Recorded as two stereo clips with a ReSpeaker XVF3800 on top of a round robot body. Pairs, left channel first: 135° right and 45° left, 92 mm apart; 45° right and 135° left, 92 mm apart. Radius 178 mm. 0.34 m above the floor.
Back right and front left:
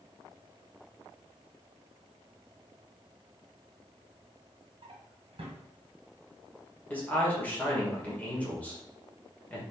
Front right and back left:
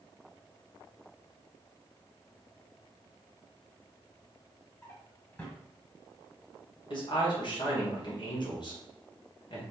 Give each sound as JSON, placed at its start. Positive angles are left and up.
{"t": 4.8, "sound": "a drawer", "azimuth_deg": 20, "distance_m": 1.3}
{"t": 6.9, "sound": "a man speaking", "azimuth_deg": -65, "distance_m": 2.0}